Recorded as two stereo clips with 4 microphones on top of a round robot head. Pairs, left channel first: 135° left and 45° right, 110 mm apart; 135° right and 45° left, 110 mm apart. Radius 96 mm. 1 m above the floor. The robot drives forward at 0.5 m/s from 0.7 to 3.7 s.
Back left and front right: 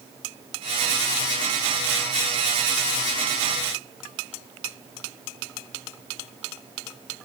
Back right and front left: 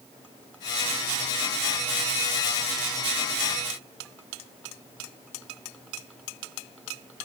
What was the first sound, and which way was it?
Only background noise.